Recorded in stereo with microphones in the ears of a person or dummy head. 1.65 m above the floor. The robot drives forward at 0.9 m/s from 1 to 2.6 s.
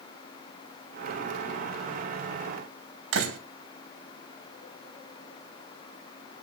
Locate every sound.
3.1 s a door slam: 80° right, 3 m